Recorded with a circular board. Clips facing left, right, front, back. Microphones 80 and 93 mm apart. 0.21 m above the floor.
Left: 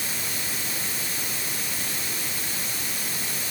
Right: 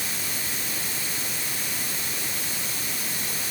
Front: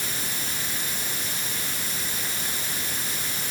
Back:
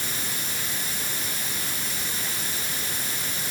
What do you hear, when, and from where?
Only background noise.